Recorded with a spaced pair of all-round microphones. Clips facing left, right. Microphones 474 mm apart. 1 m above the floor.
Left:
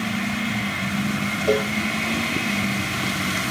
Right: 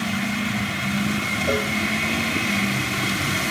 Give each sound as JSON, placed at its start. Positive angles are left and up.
{"t": 1.5, "sound": "a cowbell", "side_deg": -35, "distance_m": 9.5}